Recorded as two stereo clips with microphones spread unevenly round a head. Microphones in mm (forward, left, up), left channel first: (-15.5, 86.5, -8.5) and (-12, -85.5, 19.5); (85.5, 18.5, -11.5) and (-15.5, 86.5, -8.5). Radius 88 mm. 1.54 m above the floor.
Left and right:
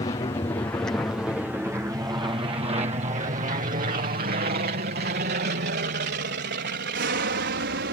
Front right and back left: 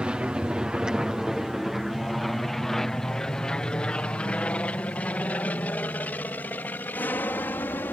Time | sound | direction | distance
0.0 | an aircraft | 75° left | ?